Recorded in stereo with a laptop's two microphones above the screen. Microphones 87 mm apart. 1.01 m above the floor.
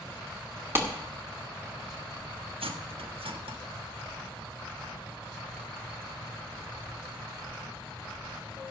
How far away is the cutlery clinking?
About 1.0 m.